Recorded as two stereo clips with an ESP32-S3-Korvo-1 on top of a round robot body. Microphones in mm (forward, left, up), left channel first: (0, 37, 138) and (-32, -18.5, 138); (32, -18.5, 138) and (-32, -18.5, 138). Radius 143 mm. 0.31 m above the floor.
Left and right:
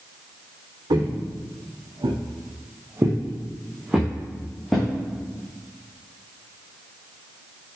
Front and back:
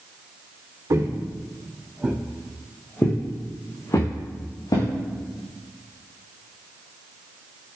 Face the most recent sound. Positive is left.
turn(degrees=-30)